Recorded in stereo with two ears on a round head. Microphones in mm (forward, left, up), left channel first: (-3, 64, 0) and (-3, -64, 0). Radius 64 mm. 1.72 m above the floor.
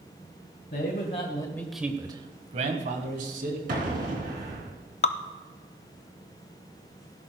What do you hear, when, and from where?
0.7 s a man speaking: 60° left (ahead or behind), 1.5 m; by 3.6 s 65° right (ahead or behind), 2.5 m
3.7 s an explosion: 60° right (ahead or behind), 3.5 m
5.0 s dripping: 45° left (ahead or behind), 0.5 m